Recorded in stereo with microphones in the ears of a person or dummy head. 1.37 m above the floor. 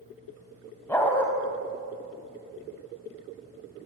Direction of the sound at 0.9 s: 10° left (ahead or behind).